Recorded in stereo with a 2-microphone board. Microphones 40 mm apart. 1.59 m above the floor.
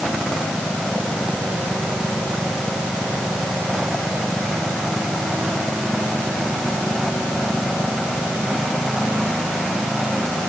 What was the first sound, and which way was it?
Only background noise.